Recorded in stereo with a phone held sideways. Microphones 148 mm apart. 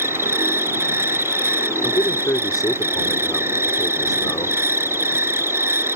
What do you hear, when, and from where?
0.0 s an insect: 15° right (ahead or behind)
1.8 s a man speaking: 25° left (ahead or behind)